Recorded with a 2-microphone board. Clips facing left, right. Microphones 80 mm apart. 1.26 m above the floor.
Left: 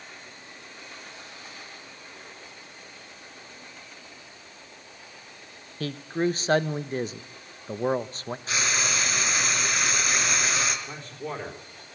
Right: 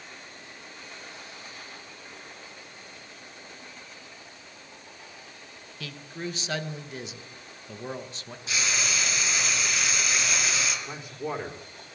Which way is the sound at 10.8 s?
5° right (ahead or behind).